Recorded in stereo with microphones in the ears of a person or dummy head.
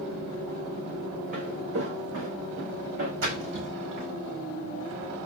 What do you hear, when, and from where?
1.3 s footsteps: 65° right (ahead or behind), 4 m; by 3.1 s 70° right (ahead or behind), 5 m
3.2 s a splash: 80° right, 5.5 m